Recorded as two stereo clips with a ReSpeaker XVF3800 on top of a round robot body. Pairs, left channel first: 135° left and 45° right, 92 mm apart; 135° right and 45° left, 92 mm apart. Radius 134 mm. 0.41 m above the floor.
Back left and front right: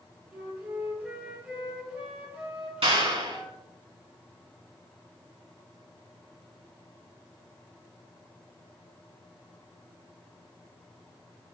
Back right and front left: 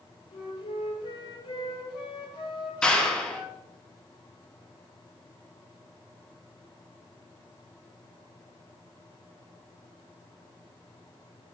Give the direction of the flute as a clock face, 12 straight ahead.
4 o'clock.